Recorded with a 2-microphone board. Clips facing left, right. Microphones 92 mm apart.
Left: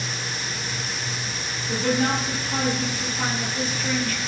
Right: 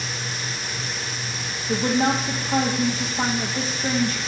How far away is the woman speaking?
About 3.5 m.